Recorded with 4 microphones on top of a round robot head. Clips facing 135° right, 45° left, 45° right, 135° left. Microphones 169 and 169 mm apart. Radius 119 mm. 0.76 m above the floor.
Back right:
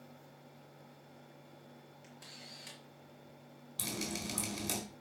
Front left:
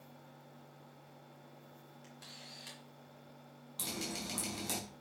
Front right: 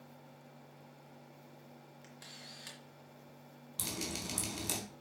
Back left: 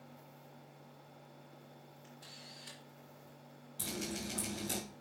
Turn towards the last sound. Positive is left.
turn(degrees=-65)